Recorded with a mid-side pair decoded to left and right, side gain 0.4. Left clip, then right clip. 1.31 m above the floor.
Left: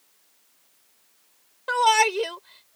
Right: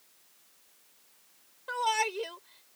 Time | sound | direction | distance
1.7 | a shout | 70° left | ?